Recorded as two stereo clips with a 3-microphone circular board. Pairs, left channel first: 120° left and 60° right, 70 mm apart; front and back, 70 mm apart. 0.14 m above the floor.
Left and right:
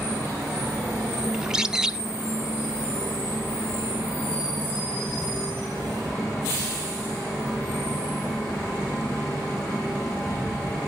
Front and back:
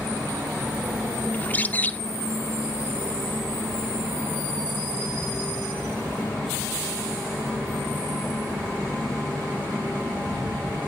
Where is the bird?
10° left, 0.6 m.